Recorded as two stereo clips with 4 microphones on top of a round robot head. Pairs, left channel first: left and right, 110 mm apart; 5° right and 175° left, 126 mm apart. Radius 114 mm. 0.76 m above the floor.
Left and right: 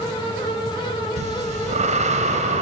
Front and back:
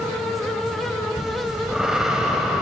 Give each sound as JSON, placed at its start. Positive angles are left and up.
{"t": 1.2, "sound": "breathing", "azimuth_deg": -100, "distance_m": 1.7}